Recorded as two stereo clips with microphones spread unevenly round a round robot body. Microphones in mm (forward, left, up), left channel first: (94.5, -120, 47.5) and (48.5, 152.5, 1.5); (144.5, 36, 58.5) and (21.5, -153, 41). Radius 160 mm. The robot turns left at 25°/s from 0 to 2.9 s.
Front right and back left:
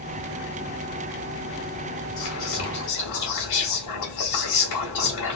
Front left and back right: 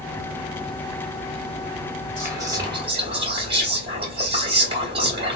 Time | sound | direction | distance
2.2 | whispering | 55° right | 1.6 m